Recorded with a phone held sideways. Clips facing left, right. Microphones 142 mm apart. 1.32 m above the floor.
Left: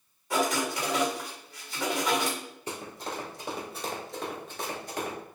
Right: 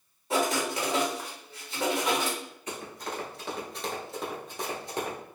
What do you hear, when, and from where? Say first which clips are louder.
0.3 s writing: even; 25° right (ahead or behind), 1.2 m
2.7 s running footsteps: even; 30° left (ahead or behind), 1.5 m; by 5.2 s 30° right (ahead or behind), 1.5 m